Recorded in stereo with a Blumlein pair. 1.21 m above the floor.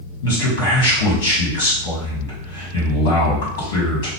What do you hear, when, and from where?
0.2 s a man speaking: 60° left, 1.7 m